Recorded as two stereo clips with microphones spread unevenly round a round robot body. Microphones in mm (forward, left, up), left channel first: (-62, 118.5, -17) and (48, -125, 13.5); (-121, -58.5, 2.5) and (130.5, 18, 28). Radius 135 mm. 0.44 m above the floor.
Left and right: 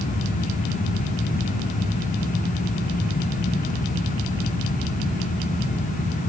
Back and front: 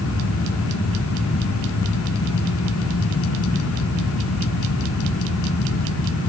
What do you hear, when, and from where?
Only background noise.